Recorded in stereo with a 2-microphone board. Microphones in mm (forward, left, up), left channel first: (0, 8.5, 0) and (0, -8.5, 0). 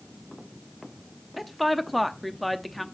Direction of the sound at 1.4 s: 5° left (ahead or behind).